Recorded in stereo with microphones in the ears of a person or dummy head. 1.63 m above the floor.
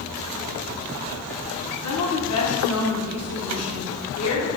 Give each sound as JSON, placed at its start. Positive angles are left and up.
{"t": 1.8, "sound": "a woman speaking", "side_deg": 80, "distance_m": 1.1}